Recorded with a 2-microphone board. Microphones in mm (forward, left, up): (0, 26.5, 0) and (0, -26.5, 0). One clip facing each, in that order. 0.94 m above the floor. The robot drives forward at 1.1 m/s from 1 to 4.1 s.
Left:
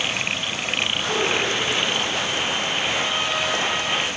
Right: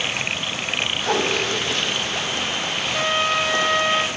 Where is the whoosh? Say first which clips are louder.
Right 2 dB; 70° right (ahead or behind), 2.5 m; by 1.4 s 65° right (ahead or behind), 2.5 m.